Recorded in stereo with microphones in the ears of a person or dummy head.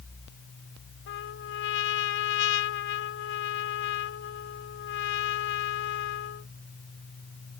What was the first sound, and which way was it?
A trumpet, 65° left (ahead or behind).